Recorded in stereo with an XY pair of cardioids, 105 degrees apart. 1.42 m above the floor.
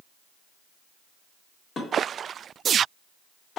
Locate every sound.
1.8 s dishes clattering: 45° left, 1.4 m